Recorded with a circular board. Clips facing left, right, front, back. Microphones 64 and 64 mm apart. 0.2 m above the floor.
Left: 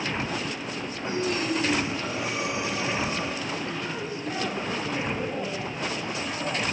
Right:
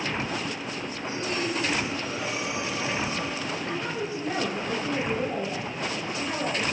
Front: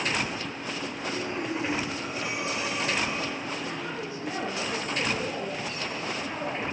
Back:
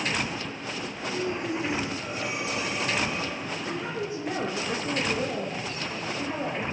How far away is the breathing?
About 9.5 m.